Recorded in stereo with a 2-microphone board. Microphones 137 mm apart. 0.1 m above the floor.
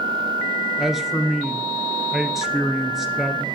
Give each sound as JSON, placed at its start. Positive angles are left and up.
{"t": 0.8, "sound": "a man speaking", "side_deg": 0, "distance_m": 1.2}